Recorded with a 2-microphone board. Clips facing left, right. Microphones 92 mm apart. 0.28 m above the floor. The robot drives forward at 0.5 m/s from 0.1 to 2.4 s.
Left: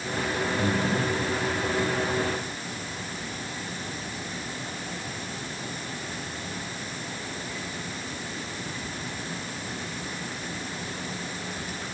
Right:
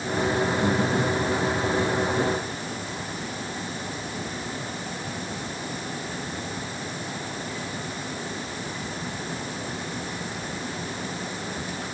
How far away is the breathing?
About 7.5 m.